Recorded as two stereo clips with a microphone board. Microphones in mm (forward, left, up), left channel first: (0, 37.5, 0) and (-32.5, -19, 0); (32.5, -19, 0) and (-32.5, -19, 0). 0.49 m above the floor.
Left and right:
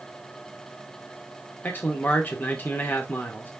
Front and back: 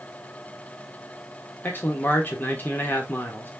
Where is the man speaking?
30° left, 1.3 m.